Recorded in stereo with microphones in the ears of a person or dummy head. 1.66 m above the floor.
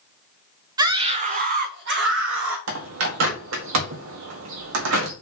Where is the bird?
75° right (ahead or behind), 2 m.